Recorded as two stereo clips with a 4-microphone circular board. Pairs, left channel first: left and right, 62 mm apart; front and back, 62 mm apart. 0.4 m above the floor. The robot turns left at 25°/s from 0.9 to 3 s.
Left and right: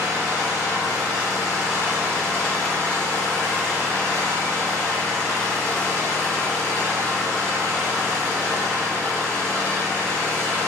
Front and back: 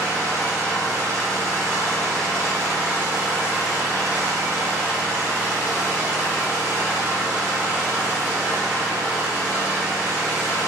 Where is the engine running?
150° right, 1.5 m; by 10.7 s 155° left, 1.5 m.